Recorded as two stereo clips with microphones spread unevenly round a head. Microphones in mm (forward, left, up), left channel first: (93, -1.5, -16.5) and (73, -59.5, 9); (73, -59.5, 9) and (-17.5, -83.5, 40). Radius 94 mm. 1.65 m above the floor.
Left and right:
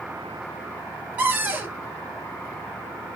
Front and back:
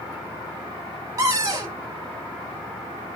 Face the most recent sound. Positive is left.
turn(degrees=-150)